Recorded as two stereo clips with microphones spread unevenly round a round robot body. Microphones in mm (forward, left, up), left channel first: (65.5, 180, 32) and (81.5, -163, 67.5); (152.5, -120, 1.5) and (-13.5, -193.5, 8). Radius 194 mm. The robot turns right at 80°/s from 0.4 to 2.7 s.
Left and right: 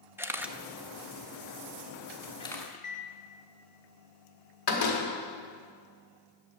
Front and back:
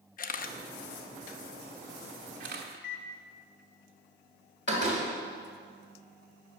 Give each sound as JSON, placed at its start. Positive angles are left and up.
{"t": 0.2, "sound": "a camera shutter", "azimuth_deg": 0, "distance_m": 0.6}
{"t": 2.7, "sound": "a microwave", "azimuth_deg": 25, "distance_m": 0.9}
{"t": 4.7, "sound": "a door slam", "azimuth_deg": 80, "distance_m": 1.7}